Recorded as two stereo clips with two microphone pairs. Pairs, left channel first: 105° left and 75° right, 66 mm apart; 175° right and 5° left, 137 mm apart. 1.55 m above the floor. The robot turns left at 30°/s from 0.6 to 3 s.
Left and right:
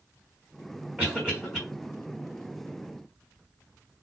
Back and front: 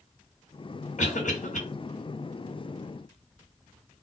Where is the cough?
145° right, 1.4 m; by 1.6 s 165° right, 1.4 m.